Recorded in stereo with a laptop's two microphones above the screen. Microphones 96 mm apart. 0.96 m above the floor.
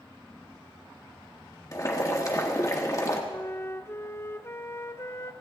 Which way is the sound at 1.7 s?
35° left (ahead or behind).